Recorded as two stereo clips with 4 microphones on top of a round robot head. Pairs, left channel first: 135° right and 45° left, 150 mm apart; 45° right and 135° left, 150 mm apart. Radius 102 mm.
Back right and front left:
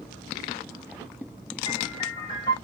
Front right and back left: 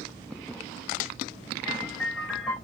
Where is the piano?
135° right, 0.8 m.